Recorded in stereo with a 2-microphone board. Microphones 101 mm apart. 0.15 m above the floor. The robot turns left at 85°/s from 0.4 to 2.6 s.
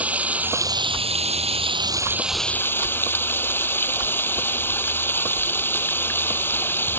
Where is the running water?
15° right; by 7.0 s 160° left.